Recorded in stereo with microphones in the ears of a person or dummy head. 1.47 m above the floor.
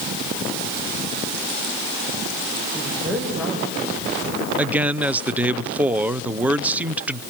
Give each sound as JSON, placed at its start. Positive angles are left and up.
{"t": 2.7, "sound": "a woman speaking", "side_deg": 0, "distance_m": 6.0}
{"t": 4.6, "sound": "a man speaking", "side_deg": -10, "distance_m": 0.6}